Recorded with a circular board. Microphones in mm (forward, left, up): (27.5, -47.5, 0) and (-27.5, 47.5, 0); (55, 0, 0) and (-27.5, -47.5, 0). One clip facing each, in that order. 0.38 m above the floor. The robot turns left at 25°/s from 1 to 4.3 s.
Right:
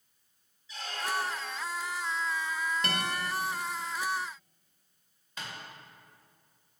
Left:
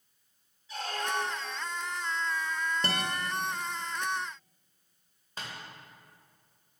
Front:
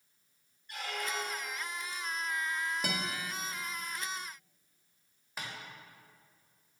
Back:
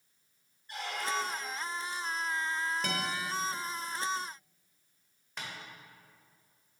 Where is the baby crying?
No baby crying in this recording.